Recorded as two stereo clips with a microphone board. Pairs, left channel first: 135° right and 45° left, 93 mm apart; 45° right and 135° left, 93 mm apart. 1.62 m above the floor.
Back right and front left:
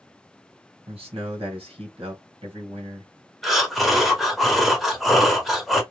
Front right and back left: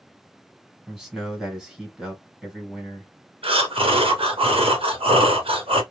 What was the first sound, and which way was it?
A man speaking, 50° left.